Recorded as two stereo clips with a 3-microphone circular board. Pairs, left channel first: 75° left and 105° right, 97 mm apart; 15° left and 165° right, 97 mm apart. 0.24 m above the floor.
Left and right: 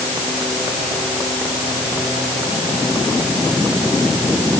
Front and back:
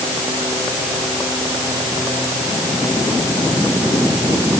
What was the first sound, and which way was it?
Only background noise.